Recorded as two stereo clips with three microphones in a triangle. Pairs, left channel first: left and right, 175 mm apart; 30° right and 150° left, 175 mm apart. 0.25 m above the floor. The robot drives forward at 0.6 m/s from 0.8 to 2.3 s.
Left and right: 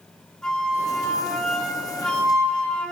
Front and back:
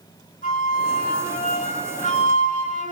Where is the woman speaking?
I don't hear a woman speaking.